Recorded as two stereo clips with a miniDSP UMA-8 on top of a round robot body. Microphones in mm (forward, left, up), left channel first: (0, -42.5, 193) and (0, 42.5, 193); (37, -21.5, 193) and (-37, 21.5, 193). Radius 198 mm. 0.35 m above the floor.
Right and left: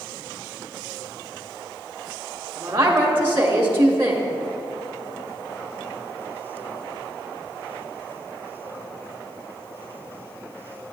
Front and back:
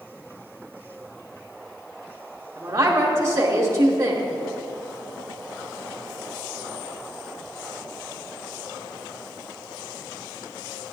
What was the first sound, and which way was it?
A woman speaking, 125° left.